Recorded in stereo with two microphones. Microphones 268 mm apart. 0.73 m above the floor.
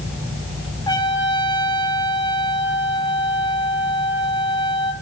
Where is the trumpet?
15° left (ahead or behind), 2.5 m.